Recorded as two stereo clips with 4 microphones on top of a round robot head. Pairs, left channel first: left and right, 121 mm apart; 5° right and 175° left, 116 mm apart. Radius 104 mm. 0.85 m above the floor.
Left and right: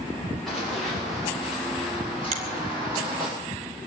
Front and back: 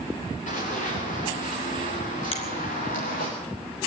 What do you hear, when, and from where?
0.5 s running footsteps: straight ahead, 7 m; by 3.3 s 15° right, 5 m
2.3 s a finger snap: 50° right, 3 m